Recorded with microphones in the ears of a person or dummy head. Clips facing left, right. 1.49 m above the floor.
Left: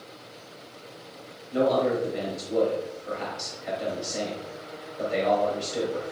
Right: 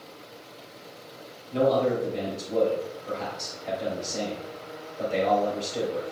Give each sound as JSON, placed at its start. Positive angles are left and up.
{"t": 1.5, "sound": "a man speaking", "side_deg": 10, "distance_m": 3.0}